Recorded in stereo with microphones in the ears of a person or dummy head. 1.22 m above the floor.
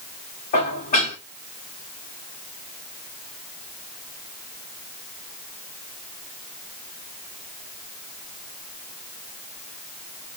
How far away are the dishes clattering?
About 1.9 m.